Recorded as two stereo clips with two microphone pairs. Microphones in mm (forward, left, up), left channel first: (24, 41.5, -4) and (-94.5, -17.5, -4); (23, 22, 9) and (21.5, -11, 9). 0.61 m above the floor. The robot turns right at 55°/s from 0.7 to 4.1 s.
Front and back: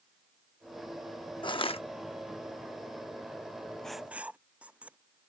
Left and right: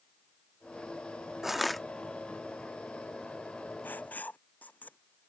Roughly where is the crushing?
Ahead.